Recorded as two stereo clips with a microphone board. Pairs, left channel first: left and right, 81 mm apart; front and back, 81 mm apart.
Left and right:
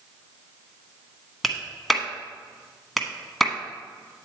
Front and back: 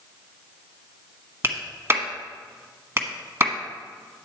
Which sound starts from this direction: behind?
A clap, at 1.4 s.